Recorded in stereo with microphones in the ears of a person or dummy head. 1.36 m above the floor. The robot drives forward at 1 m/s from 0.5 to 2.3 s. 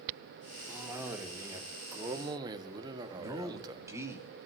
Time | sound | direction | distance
0.7 | a cough | 10° right (ahead or behind) | 3 m
3.1 | a man speaking | 15° right (ahead or behind) | 3 m